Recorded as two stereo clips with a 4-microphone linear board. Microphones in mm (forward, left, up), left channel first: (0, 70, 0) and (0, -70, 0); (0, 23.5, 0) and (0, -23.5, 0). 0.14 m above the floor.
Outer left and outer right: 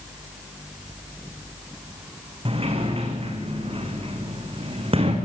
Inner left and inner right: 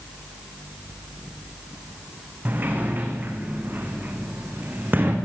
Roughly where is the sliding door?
Right.